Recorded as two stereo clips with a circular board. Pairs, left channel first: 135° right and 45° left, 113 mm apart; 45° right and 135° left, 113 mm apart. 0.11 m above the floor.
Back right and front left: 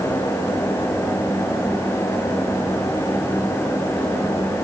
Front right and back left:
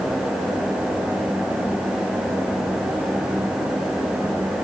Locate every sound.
Only background noise.